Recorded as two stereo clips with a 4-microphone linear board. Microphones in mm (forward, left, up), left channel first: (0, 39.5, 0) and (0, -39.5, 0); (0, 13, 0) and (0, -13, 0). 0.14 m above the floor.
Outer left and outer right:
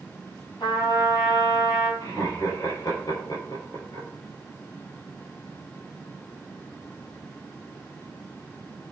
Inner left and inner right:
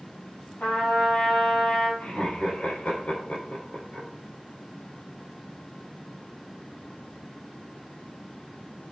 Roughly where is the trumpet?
Left.